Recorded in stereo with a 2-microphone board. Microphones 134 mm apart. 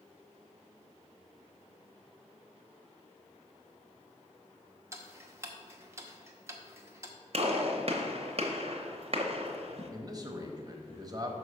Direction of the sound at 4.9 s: 20° right (ahead or behind).